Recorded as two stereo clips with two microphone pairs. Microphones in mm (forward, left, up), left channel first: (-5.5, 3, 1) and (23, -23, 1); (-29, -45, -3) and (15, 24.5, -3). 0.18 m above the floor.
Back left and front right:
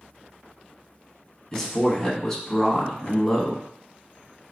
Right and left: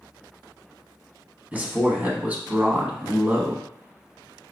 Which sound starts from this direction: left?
A man speaking, at 1.5 s.